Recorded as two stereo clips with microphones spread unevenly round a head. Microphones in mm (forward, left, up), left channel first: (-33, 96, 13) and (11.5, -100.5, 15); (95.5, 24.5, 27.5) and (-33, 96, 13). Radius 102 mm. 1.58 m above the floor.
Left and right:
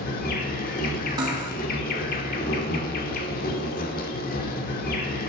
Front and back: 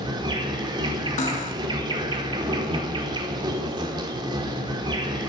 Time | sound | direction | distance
0.0 | an insect | 100° left | 1.4 m
1.2 | cutlery clinking | 10° right | 1.6 m